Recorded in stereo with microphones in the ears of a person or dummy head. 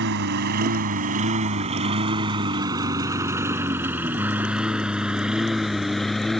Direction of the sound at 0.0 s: 55° right (ahead or behind).